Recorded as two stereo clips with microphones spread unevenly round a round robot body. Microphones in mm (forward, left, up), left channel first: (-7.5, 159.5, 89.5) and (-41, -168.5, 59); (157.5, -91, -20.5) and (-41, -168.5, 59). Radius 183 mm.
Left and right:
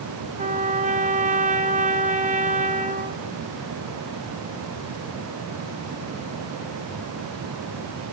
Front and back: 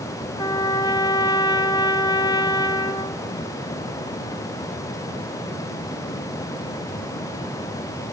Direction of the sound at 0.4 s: 35° right.